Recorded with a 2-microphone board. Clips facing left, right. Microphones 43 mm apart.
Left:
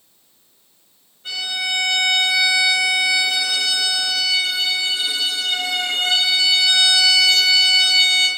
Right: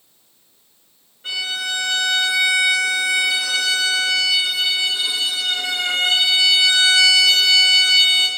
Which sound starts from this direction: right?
A violin, at 1.2 s.